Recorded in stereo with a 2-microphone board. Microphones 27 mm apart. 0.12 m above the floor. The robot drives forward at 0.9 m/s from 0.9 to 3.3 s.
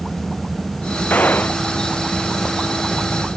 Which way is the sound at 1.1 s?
75° left (ahead or behind).